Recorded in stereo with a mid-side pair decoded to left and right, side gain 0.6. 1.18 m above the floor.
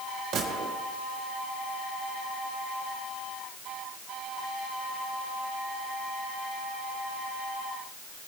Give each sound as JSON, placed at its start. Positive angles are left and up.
{"t": 0.3, "sound": "a gunshot", "azimuth_deg": -60, "distance_m": 3.5}